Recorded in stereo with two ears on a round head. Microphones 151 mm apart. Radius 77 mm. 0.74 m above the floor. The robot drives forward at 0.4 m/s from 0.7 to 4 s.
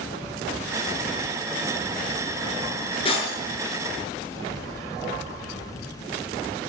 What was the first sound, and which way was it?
Breaking glass, 35° left (ahead or behind).